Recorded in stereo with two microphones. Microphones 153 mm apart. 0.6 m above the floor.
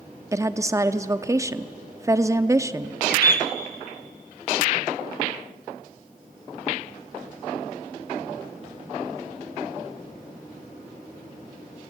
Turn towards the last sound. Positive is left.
turn(degrees=70)  # may be behind; listen again after turning